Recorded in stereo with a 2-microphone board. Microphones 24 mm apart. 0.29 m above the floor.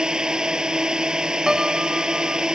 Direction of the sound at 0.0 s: 35° right (ahead or behind).